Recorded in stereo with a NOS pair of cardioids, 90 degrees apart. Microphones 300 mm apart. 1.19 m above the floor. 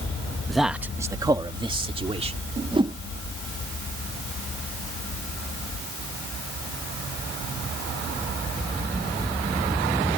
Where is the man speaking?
Straight ahead; by 2.4 s 20° right.